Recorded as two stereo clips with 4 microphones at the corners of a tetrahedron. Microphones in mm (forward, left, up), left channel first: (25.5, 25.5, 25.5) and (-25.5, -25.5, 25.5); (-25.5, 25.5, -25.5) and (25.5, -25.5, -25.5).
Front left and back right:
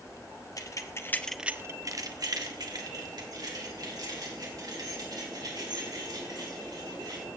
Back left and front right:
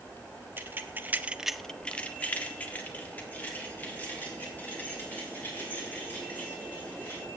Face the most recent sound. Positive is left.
turn(degrees=-160)